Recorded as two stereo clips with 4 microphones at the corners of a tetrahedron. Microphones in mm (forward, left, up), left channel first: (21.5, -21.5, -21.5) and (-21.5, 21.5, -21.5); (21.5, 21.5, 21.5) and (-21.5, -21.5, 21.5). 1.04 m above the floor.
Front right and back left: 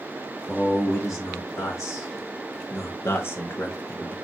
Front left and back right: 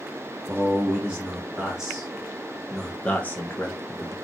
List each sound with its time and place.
0.5 s a man speaking: 70° right, 1.8 m; by 4.2 s 25° left, 0.9 m